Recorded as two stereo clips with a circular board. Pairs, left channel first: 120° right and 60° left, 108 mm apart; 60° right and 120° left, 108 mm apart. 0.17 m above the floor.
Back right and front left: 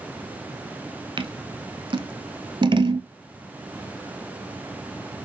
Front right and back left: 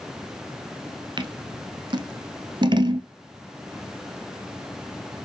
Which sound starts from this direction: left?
Scissors, at 1.2 s.